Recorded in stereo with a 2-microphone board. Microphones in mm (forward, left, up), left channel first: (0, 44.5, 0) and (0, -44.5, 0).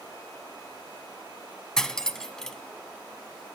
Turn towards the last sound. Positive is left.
turn(degrees=5)  # may be behind; listen again after turning